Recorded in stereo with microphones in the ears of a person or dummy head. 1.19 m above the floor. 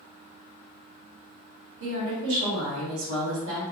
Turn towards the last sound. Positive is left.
turn(degrees=-75)  # may be behind; listen again after turning